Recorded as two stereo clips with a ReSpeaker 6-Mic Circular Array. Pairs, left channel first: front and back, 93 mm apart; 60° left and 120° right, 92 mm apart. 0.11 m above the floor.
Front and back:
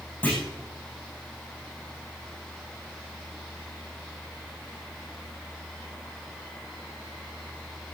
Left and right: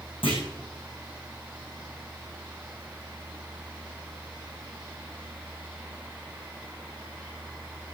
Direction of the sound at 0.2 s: 75° left.